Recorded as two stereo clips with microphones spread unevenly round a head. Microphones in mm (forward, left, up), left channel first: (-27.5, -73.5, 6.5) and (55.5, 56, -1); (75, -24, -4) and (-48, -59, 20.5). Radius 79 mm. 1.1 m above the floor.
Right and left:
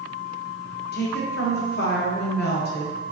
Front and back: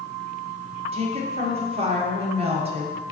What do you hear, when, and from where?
0.9 s a woman speaking: 120° right, 0.8 m